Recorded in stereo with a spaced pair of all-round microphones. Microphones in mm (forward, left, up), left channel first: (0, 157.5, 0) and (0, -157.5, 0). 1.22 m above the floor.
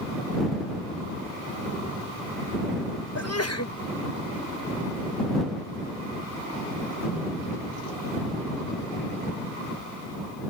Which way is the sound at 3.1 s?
50° left (ahead or behind).